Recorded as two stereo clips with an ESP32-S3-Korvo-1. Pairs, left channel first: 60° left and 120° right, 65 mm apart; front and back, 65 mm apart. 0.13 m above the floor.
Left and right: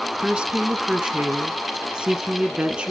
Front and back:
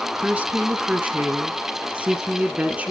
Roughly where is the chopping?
I don't hear chopping.